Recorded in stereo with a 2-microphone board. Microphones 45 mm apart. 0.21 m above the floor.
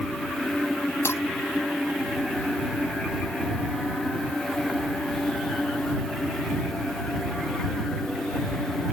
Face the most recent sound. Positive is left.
turn(degrees=70)  # may be behind; listen again after turning